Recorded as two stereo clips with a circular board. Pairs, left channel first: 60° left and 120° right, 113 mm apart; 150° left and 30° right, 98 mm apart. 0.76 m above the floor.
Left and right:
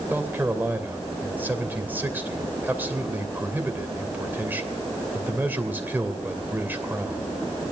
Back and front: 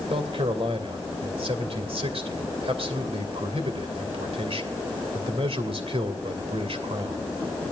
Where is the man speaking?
45° right, 2.5 m.